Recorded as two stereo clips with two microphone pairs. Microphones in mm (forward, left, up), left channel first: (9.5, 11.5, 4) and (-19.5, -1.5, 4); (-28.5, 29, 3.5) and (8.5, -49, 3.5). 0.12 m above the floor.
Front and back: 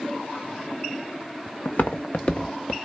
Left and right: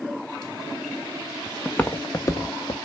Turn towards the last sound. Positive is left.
turn(degrees=80)